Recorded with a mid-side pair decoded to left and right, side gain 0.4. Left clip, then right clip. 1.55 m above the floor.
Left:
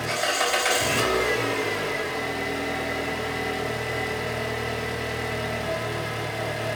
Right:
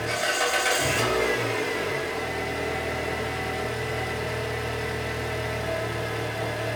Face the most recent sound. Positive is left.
turn(degrees=25)